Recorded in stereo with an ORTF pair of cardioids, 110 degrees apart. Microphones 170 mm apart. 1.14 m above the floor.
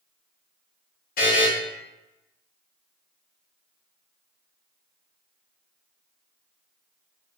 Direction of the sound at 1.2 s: 60° left.